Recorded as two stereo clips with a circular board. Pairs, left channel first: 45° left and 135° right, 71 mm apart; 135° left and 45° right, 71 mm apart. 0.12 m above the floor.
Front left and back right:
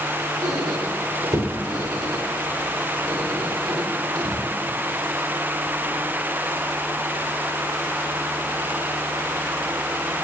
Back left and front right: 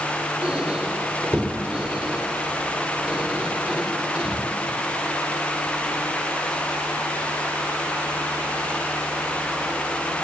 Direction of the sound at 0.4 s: 120° right.